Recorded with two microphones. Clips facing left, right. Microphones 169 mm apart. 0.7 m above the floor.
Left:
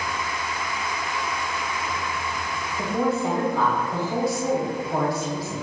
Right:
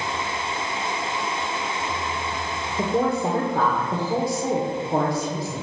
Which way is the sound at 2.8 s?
50° right (ahead or behind).